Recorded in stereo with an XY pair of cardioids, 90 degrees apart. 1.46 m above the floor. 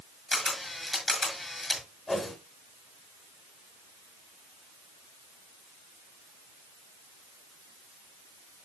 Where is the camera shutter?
25° left, 5.5 m.